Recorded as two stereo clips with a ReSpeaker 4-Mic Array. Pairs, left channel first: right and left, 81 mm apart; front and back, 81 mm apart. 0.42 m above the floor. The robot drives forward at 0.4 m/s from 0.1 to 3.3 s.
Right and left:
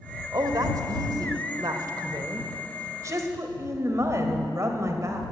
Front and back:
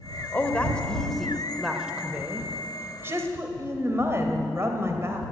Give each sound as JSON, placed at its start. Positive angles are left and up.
{"t": 0.3, "sound": "a woman speaking", "azimuth_deg": 65, "distance_m": 1.2}